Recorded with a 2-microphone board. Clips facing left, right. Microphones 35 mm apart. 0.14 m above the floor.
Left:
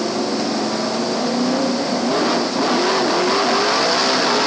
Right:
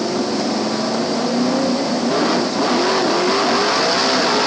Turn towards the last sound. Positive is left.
No sound to turn to.